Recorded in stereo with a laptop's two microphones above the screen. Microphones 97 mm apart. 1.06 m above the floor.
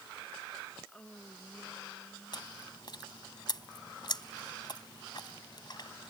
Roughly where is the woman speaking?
Centre.